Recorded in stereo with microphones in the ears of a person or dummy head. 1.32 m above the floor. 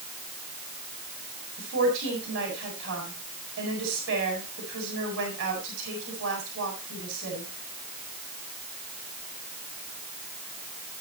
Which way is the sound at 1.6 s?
60° right (ahead or behind).